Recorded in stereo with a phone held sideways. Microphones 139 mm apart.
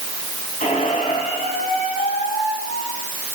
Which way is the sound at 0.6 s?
60° left (ahead or behind).